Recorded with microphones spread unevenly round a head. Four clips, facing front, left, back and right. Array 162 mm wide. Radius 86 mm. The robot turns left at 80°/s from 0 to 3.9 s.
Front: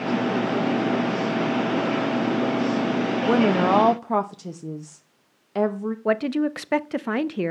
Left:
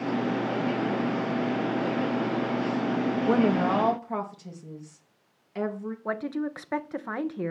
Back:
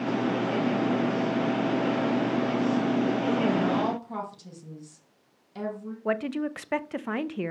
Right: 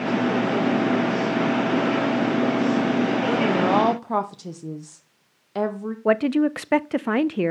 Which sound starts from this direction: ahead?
A woman speaking, at 3.3 s.